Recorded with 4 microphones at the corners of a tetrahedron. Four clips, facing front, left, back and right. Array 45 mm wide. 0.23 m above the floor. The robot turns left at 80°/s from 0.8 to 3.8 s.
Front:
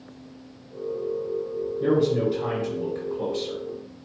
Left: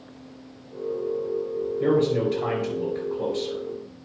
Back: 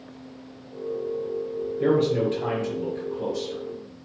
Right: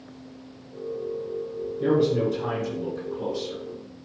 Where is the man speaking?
160° left, 4.5 m; by 3.6 s 15° left, 4.5 m.